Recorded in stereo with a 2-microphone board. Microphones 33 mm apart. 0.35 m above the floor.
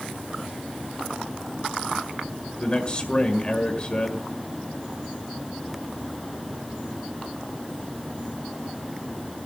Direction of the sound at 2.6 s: 35° left (ahead or behind).